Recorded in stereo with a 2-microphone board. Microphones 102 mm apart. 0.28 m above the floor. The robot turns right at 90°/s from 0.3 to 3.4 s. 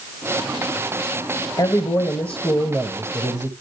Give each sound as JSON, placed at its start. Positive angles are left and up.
{"t": 1.6, "sound": "a man speaking", "azimuth_deg": 95, "distance_m": 1.4}